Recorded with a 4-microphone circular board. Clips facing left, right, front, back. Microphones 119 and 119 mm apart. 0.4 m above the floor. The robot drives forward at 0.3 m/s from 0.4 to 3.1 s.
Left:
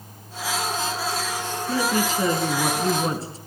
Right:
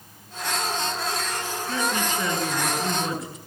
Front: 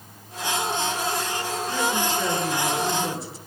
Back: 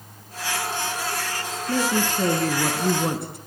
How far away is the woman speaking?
About 4.5 m.